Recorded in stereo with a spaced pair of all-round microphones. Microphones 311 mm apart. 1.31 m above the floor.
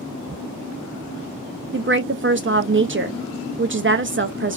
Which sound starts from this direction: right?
A woman speaking, at 1.7 s.